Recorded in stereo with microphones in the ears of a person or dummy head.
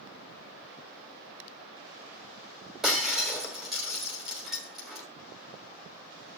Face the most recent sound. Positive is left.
turn(degrees=-5)  # may be behind; listen again after turning